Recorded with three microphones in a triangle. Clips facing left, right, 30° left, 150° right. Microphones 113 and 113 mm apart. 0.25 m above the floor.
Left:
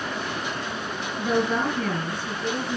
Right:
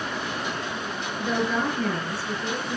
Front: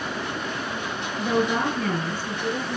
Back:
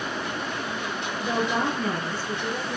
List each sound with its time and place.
1.2 s a woman speaking: 65° left, 4.5 m